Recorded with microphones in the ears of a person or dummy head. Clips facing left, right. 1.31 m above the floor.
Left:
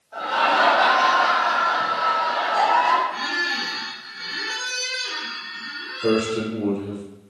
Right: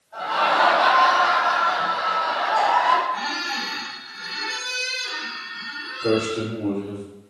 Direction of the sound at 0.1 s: 85° left.